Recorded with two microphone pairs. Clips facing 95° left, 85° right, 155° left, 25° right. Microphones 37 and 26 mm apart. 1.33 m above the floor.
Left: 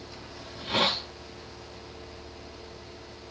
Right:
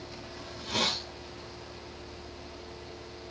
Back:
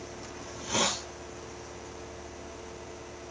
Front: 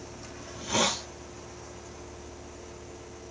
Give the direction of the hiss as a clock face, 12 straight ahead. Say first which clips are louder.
Left 4 dB, front 2 dB; 10 o'clock.